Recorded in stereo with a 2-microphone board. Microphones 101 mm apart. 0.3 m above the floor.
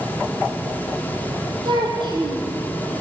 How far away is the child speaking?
About 6 m.